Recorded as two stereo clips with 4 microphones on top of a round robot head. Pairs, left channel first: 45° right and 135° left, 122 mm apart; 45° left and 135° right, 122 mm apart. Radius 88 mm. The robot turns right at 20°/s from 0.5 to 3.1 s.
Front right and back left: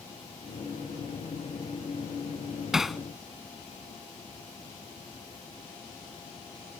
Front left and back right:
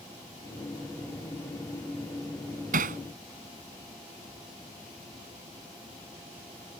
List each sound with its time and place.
2.7 s hammering: 140° right; by 3.0 s 135° right